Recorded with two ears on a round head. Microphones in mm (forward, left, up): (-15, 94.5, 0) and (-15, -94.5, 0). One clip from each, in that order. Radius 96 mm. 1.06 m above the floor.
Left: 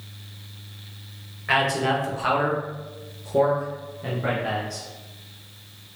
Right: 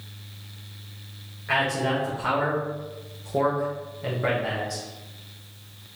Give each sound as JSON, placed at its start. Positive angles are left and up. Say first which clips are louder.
{"t": 1.5, "sound": "a man speaking", "louder": "left 3 dB", "side_deg": 45, "distance_m": 1.5}